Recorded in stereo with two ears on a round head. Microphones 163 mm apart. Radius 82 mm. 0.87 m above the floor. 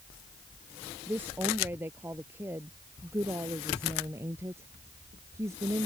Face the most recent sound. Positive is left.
turn(degrees=-15)  # may be behind; listen again after turning